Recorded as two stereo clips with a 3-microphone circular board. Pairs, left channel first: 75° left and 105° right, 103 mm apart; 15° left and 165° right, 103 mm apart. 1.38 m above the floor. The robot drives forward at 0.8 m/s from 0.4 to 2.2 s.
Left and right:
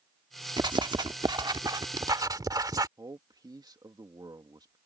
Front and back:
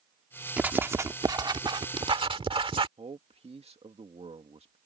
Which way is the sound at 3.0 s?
155° right.